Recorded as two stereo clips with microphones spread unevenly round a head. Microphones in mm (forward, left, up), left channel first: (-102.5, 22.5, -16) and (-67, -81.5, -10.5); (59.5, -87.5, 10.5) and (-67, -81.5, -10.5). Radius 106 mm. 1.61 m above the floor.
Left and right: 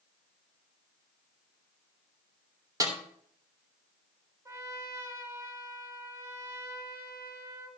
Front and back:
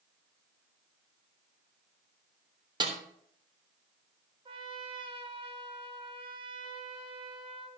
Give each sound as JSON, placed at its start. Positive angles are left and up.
{"t": 2.8, "sound": "a snare drum", "azimuth_deg": -125, "distance_m": 3.0}
{"t": 4.5, "sound": "a trumpet", "azimuth_deg": -135, "distance_m": 2.0}